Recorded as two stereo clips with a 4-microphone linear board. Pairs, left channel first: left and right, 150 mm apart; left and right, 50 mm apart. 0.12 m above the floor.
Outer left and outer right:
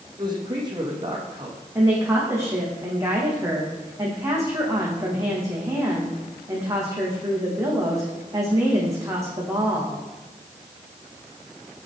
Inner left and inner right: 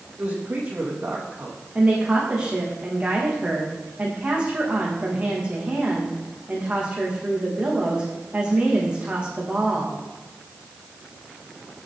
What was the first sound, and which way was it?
A man speaking, 30° right (ahead or behind).